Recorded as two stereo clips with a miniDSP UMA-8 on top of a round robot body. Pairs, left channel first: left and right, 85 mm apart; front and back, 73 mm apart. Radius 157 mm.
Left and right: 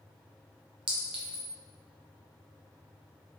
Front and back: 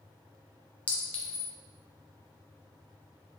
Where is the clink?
70° right, 0.6 m.